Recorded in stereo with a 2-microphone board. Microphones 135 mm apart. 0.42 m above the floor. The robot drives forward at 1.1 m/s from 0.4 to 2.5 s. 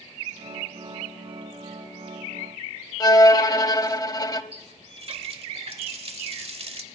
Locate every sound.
3.0 s a violin: 30° left (ahead or behind), 0.6 m
4.5 s a running tap: 50° right (ahead or behind), 1.1 m